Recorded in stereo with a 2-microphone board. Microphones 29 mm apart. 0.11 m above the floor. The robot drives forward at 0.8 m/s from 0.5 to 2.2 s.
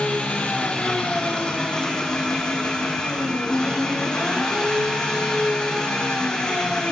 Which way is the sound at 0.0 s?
45° left (ahead or behind).